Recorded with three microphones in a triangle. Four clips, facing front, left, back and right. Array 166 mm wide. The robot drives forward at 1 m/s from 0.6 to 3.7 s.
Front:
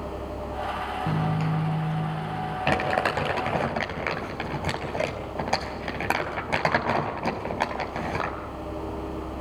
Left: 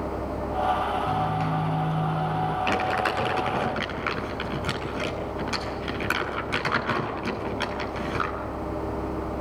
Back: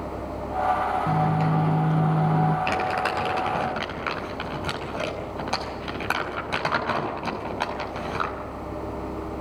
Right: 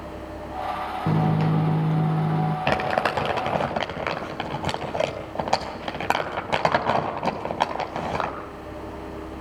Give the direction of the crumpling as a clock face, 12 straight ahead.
2 o'clock.